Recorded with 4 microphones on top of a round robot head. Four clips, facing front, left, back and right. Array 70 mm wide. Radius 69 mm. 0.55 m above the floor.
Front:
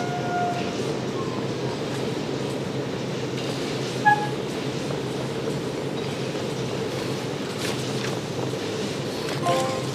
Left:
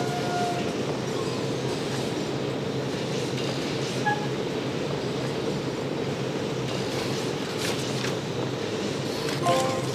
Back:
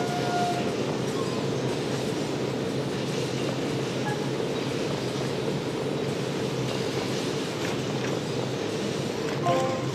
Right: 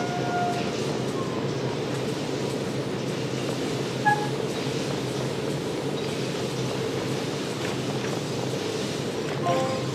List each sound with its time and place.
4.0 s a flute: 15° right